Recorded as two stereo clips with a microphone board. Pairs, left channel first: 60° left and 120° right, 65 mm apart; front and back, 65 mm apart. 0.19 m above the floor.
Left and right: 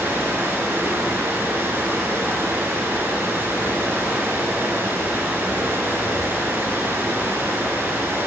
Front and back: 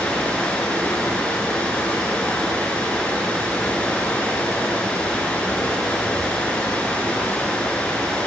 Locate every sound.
0.0 s running water: 70° right, 1.6 m